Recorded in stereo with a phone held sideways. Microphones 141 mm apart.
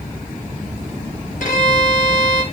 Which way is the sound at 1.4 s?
65° left (ahead or behind).